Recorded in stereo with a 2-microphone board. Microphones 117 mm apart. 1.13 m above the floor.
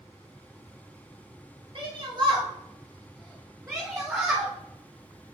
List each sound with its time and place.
1.8 s a shout: 50° right (ahead or behind), 3.5 m; by 4.5 s 20° right (ahead or behind), 3.5 m